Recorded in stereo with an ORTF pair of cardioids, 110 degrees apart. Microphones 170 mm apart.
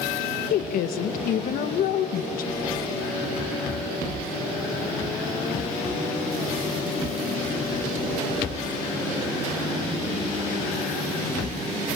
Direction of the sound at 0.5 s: 65° left.